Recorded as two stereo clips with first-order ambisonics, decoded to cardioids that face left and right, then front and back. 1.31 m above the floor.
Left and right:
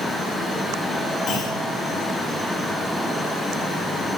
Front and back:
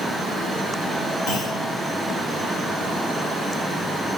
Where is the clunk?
40° left, 3 m.